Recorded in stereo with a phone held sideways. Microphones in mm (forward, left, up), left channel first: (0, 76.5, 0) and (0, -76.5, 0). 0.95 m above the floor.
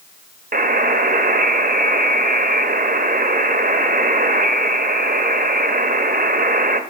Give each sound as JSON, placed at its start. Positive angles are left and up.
{"t": 0.5, "sound": "a buzzer", "side_deg": -70, "distance_m": 0.5}